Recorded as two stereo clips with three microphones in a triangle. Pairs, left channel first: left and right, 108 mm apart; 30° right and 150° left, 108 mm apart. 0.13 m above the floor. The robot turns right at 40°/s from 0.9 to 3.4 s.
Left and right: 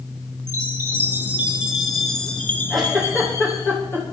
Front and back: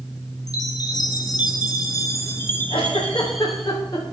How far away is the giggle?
About 6 m.